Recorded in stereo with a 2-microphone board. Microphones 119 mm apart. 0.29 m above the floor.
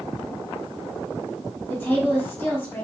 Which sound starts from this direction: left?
A woman speaking, at 1.7 s.